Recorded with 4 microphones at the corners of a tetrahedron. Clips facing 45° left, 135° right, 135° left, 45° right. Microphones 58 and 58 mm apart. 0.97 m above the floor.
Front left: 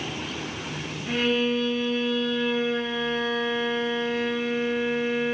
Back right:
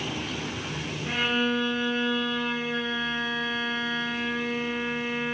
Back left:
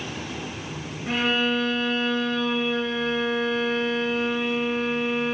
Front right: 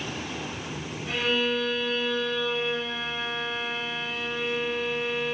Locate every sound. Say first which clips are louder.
1.1 s a violin: front left 2 dB, back left 3 dB; 170° left, 1.0 m